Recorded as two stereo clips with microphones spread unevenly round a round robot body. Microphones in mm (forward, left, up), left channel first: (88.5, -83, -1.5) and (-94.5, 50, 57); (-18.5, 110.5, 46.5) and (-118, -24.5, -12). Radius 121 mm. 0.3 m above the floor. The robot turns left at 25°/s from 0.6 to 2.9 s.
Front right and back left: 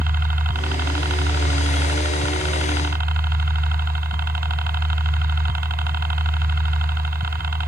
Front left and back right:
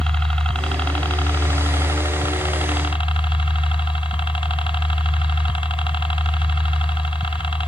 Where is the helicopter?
175° left; by 7.7 s 120° left.